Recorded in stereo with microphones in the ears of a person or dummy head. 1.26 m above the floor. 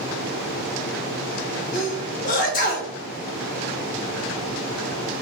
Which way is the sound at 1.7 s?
40° left (ahead or behind).